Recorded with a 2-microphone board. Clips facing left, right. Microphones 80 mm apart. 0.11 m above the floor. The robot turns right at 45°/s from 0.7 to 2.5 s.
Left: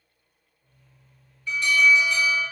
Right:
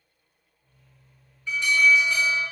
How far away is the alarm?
About 1.8 m.